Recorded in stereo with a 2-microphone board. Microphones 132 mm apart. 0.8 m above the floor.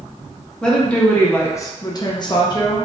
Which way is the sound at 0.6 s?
5° left (ahead or behind).